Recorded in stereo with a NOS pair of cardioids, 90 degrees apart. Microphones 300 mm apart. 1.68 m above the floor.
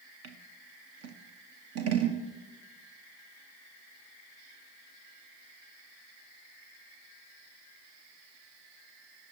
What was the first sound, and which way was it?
Scissors, 55° right.